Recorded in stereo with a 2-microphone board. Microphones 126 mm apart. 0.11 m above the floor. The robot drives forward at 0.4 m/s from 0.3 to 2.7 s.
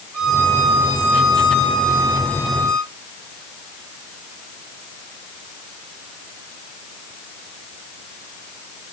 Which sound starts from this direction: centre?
A violin, at 0.1 s.